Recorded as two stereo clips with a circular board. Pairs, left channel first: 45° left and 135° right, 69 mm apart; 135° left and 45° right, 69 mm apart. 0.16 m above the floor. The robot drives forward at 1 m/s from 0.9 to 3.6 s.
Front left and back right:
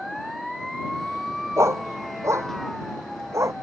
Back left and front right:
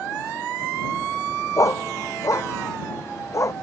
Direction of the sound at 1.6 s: Straight behind.